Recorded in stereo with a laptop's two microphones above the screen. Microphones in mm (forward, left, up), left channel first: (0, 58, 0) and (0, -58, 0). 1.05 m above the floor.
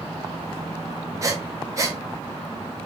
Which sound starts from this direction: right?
Breathing, at 1.2 s.